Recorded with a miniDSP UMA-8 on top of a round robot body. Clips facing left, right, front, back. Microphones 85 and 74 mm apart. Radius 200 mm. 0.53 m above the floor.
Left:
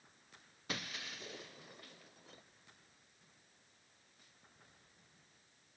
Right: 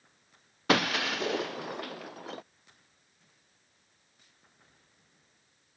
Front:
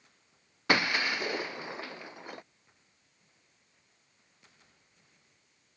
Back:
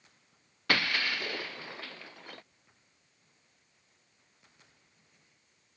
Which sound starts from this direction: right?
Breaking glass, at 0.7 s.